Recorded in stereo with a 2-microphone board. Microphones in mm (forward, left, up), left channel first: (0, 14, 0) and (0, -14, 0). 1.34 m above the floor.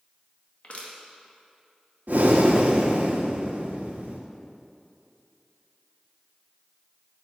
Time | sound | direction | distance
0.6 | crushing | 55° left (ahead or behind) | 1.9 m
2.1 | breathing | 70° right (ahead or behind) | 1.5 m